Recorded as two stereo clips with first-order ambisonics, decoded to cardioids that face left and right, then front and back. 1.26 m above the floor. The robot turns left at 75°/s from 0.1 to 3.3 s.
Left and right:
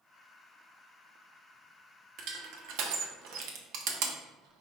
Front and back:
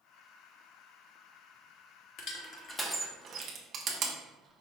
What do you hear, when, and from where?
2.2 s crushing: 35° right, 0.8 m; by 4.6 s 120° right, 0.8 m